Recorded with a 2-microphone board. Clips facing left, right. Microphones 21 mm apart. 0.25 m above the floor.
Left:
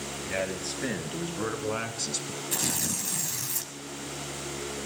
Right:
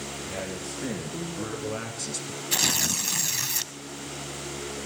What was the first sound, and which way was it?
A man speaking, 60° left (ahead or behind).